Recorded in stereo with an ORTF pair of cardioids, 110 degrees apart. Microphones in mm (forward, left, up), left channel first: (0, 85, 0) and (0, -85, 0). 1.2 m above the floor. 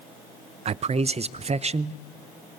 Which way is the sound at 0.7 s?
40° right.